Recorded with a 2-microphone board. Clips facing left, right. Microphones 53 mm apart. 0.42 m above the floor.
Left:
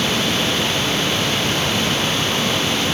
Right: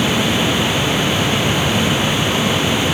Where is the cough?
I don't hear a cough.